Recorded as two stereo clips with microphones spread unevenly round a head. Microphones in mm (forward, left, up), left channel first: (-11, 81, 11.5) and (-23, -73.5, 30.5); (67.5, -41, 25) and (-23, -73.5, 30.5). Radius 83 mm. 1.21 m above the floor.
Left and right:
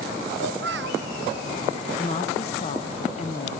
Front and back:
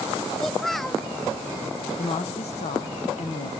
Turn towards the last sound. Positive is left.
turn(degrees=35)